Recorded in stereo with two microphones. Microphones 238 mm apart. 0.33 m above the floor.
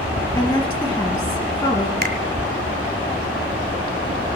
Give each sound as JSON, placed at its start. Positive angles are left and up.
{"t": 0.3, "sound": "a woman speaking", "side_deg": 15, "distance_m": 3.0}
{"t": 2.0, "sound": "a finger snap", "side_deg": -45, "distance_m": 1.4}